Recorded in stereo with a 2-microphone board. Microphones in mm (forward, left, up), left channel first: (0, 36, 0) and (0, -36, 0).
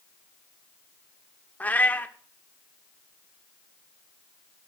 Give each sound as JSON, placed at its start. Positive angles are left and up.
{"t": 1.6, "sound": "a cat meowing", "side_deg": 20, "distance_m": 0.8}